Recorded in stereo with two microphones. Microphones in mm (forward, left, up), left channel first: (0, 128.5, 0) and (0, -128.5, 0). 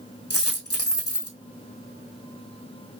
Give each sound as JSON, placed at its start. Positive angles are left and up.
{"t": 0.3, "sound": "a dropped coin", "side_deg": 65, "distance_m": 1.9}